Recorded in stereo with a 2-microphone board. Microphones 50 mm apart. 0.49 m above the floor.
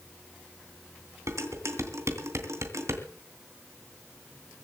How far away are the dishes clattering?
About 2.5 m.